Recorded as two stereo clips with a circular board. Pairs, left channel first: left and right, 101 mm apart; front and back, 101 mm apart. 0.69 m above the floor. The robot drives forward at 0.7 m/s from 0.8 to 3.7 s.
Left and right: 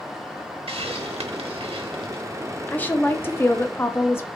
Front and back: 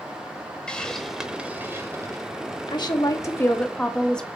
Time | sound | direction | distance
0.7 | a hiss | 80° right | 1.1 m
2.7 | a woman speaking | 20° left | 1.1 m